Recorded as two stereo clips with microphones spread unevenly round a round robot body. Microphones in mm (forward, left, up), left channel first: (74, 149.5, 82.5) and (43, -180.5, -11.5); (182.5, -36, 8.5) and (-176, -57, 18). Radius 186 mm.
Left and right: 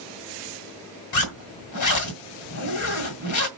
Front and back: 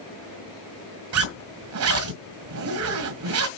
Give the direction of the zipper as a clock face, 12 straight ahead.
8 o'clock.